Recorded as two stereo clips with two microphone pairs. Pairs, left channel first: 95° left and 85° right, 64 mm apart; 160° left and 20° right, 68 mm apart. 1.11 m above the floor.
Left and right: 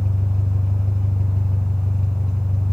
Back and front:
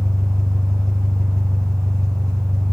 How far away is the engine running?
About 2.5 m.